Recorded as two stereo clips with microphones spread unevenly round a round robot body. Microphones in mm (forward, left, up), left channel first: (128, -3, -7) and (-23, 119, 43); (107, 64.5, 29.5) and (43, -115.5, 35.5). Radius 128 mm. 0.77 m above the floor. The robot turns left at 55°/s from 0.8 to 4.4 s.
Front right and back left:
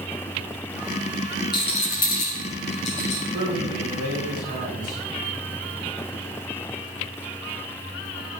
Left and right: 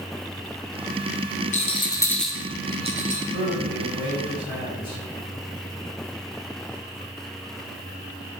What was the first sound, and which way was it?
A rattle, 25° left.